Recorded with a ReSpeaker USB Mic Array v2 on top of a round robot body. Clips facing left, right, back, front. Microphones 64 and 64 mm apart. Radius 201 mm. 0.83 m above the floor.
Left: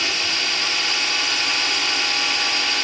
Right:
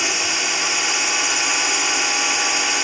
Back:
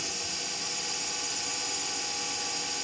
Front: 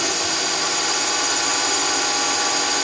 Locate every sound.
0.0 s a drone: 15° right